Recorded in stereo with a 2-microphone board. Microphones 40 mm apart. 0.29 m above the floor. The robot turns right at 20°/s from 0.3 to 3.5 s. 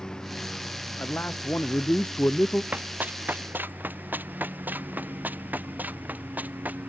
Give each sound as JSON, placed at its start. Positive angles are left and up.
{"t": 0.0, "sound": "a lawn mower", "azimuth_deg": 165}
{"t": 1.0, "sound": "a man speaking", "azimuth_deg": 110}
{"t": 2.7, "sound": "running footsteps", "side_deg": -45}